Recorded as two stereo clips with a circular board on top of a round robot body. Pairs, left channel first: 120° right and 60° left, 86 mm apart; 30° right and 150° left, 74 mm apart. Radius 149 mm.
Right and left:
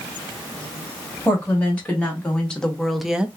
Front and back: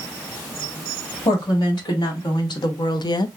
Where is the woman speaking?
50° right, 1.7 m; by 3.3 s 15° right, 0.5 m.